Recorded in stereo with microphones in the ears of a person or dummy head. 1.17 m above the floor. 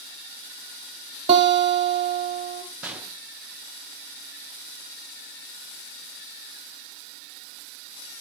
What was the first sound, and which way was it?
A guitar, 35° right (ahead or behind).